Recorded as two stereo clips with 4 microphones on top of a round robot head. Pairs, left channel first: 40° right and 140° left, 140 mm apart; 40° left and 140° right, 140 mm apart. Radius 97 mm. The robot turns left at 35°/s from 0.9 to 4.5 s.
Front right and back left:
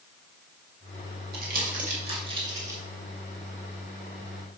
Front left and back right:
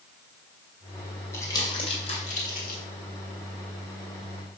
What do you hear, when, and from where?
1.3 s crumpling: 115° left, 2.5 m; by 2.8 s 65° left, 2.5 m